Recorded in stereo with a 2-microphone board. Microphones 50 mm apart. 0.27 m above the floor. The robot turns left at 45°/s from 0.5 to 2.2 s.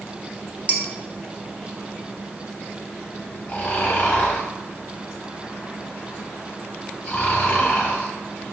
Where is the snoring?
30° left (ahead or behind), 1.2 m.